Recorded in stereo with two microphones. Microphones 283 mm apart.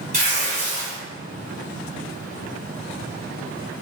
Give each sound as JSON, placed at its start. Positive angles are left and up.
{"t": 0.1, "sound": "tearing paper", "side_deg": -25, "distance_m": 2.0}